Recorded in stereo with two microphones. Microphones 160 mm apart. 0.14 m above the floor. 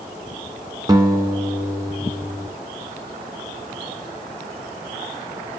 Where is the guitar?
25° right (ahead or behind), 0.6 m.